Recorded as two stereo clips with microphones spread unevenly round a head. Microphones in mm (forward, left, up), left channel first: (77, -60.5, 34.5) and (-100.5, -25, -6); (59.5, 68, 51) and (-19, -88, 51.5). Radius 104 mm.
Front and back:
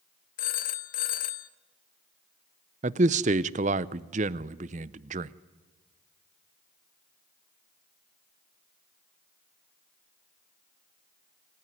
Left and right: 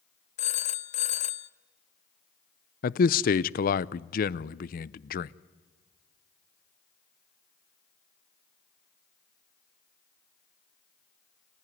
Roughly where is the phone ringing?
Ahead.